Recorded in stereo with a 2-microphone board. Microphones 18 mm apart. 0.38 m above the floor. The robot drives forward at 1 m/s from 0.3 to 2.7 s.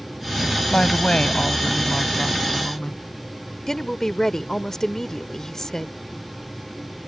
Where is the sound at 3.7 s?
25° left (ahead or behind).